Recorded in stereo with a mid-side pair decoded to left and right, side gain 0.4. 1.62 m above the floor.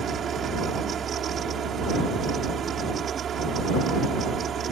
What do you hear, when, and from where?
0.0 s a fan: 60° right